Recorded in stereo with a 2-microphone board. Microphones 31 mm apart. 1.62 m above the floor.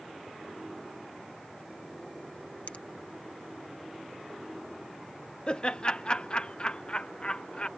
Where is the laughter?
30° left (ahead or behind).